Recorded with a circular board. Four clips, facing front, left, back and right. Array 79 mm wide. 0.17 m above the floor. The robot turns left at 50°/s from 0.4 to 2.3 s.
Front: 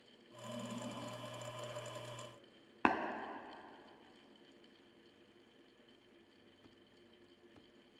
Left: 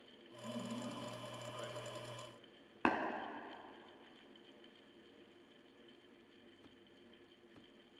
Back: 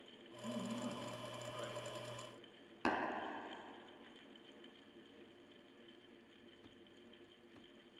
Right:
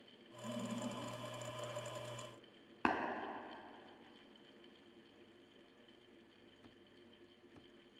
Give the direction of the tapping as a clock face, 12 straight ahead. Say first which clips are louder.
Left 1 dB, front 5 dB; 12 o'clock.